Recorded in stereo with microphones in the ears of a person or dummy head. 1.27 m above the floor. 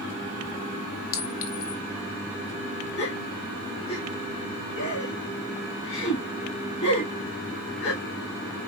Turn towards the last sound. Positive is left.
turn(degrees=35)  # may be behind; listen again after turning